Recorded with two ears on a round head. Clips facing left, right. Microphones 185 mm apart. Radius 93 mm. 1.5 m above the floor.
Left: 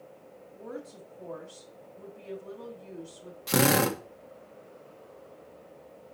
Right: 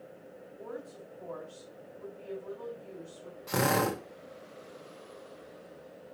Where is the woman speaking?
35° left (ahead or behind), 3 m.